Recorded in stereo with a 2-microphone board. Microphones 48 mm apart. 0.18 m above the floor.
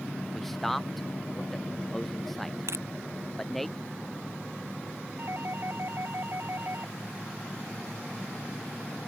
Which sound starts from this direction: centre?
A man speaking, at 0.3 s.